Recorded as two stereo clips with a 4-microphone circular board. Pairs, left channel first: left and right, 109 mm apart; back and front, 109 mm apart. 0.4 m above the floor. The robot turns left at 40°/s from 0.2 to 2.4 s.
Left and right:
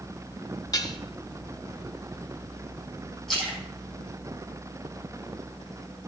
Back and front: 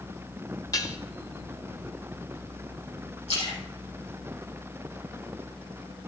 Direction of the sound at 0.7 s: 135° left.